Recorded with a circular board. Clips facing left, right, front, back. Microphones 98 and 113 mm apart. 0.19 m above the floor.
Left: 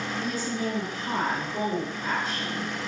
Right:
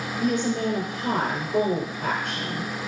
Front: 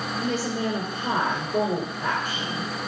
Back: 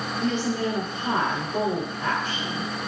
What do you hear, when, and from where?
0.2 s a woman speaking: 80° right, 3 m